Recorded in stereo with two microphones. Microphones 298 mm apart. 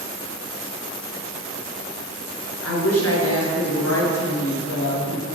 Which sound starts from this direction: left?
A woman speaking, at 2.6 s.